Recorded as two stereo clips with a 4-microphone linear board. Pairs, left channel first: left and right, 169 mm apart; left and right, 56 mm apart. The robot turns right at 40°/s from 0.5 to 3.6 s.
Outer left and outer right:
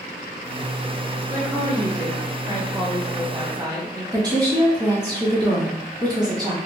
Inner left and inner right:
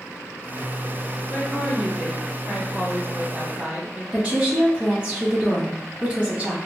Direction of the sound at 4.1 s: 25° right (ahead or behind).